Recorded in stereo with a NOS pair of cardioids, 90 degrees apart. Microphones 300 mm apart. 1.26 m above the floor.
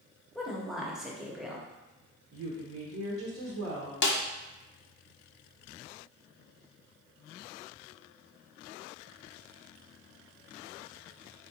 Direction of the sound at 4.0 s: 40° left.